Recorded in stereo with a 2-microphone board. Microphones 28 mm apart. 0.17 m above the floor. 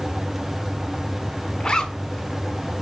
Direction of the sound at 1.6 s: 25° left (ahead or behind).